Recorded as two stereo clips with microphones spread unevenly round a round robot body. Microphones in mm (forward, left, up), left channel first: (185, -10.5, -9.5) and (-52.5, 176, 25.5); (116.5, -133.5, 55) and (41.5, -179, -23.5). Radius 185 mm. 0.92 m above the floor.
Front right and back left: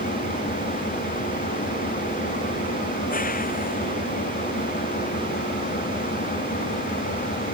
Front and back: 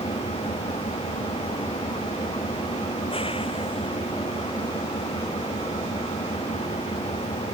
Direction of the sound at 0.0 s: 25° left.